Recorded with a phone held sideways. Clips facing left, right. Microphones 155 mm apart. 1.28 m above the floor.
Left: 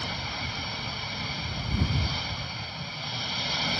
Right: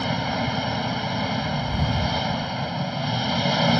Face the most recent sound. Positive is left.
turn(degrees=-65)  # may be behind; listen again after turning